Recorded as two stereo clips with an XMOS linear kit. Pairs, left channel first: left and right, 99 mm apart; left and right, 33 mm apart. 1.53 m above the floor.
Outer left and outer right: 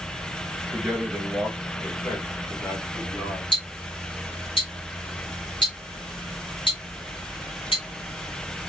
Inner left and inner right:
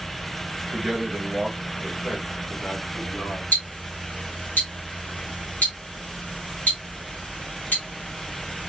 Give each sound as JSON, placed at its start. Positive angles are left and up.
{"t": 0.7, "sound": "a man speaking", "side_deg": 5, "distance_m": 2.5}
{"t": 3.5, "sound": "ticking", "side_deg": 60, "distance_m": 2.5}